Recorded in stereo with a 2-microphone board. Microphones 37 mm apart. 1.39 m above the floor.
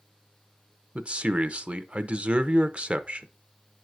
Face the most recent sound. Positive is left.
turn(degrees=-35)  # may be behind; listen again after turning